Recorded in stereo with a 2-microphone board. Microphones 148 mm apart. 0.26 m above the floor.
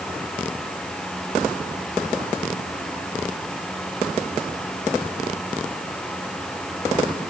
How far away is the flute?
No flute in this recording.